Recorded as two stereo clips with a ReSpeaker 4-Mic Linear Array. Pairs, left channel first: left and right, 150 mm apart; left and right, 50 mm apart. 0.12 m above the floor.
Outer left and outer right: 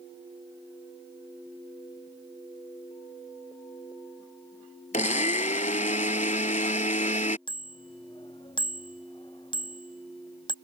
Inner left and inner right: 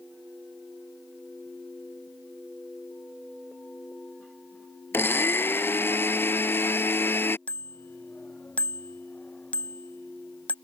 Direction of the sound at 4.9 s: 55° left (ahead or behind).